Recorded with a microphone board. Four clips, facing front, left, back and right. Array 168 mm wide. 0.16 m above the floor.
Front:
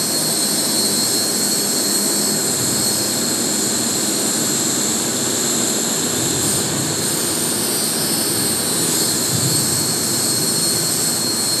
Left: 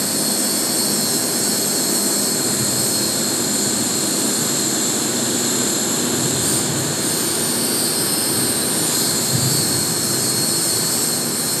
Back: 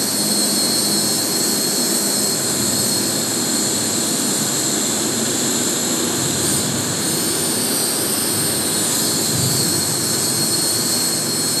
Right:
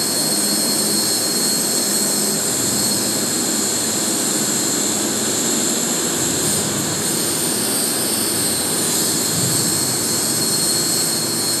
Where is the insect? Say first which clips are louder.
Even, back 1 dB; 165° right, 1.9 m.